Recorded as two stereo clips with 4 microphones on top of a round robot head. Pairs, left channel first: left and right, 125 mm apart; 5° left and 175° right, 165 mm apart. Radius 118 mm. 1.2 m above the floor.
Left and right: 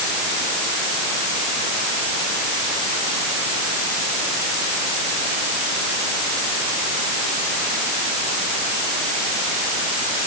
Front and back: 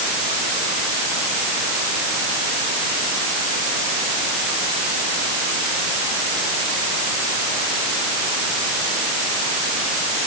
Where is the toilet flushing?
No toilet flushing in this recording.